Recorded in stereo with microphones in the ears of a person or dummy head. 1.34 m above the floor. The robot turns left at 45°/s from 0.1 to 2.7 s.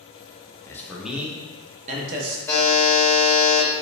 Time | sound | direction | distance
0.7 | a man speaking | 20° left | 0.7 m
2.5 | a buzzer | 10° left (ahead or behind) | 0.9 m